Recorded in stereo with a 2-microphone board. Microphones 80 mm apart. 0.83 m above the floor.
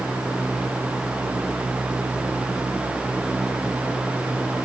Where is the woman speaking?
I don't hear a woman speaking.